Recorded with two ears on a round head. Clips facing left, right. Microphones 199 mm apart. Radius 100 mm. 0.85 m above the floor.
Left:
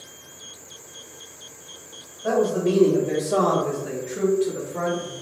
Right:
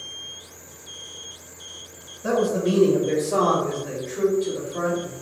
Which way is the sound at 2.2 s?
30° right (ahead or behind).